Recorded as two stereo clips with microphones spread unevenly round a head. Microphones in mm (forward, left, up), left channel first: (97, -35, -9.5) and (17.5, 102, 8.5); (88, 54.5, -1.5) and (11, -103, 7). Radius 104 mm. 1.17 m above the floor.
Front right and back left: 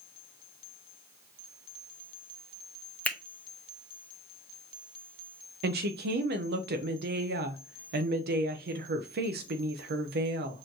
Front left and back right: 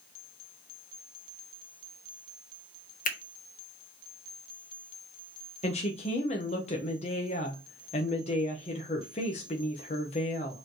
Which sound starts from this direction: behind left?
A woman speaking, at 5.6 s.